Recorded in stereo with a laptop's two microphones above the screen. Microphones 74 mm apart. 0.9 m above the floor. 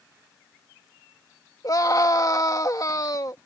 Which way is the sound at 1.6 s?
50° left (ahead or behind).